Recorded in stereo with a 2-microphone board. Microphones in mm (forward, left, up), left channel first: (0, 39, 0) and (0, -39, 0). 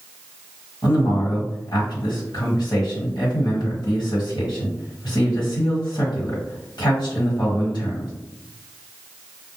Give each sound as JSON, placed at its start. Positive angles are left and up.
{"t": 0.8, "sound": "a man speaking", "side_deg": 65, "distance_m": 1.4}